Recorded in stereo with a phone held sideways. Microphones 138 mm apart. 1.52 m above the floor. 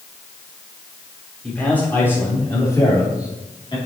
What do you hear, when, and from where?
1.4 s a man speaking: 10° left (ahead or behind), 4 m; by 3.8 s 35° left (ahead or behind), 3 m